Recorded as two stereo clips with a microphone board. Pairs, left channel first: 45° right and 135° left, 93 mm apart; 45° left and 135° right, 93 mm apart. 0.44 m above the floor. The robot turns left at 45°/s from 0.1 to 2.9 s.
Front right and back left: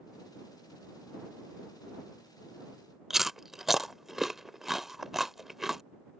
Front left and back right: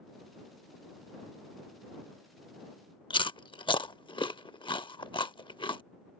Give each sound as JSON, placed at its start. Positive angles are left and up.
{"t": 3.1, "sound": "chewing", "azimuth_deg": 50}